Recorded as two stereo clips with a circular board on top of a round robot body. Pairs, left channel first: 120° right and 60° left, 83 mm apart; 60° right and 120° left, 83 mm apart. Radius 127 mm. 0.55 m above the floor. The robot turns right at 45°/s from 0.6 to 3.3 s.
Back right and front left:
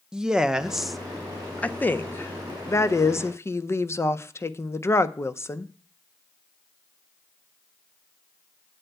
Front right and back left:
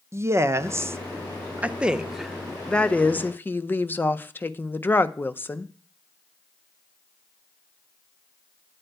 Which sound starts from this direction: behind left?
A woman speaking, at 0.1 s.